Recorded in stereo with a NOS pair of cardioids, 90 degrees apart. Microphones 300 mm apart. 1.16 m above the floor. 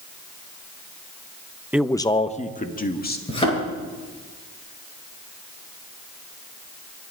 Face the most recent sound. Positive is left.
turn(degrees=20)